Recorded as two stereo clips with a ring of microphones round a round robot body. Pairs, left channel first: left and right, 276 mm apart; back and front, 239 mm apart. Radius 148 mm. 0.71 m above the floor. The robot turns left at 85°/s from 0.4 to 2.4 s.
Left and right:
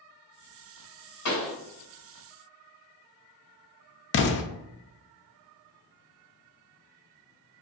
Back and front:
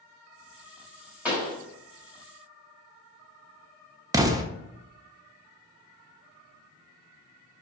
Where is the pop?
85° left, 1.5 m; by 1.6 s 60° left, 1.5 m.